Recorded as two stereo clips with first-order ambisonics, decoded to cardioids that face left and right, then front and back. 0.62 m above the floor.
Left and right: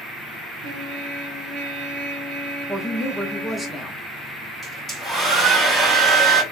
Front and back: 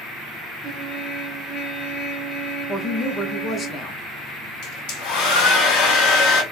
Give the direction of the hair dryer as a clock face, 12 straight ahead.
12 o'clock.